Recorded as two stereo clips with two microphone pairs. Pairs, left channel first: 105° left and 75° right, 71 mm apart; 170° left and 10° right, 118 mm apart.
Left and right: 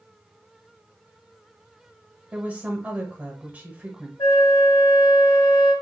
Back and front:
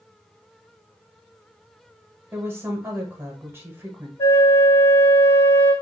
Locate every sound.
2.3 s a woman speaking: 45° right, 1.0 m
4.2 s a flute: 110° left, 2.0 m